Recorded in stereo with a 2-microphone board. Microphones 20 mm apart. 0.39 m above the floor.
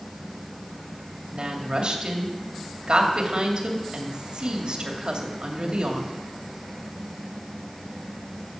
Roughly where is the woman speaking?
Right.